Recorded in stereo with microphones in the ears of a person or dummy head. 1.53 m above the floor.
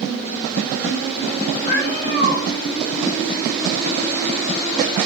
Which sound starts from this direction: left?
A cat meowing, at 1.7 s.